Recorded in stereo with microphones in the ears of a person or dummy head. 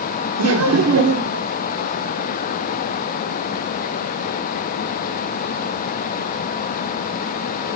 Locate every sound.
0.4 s laughter: 85° right, 0.7 m